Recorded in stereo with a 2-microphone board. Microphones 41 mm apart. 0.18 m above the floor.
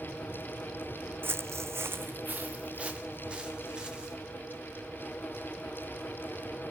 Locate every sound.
1.2 s footsteps: 50° right (ahead or behind), 0.8 m; by 4.2 s 20° right (ahead or behind), 4 m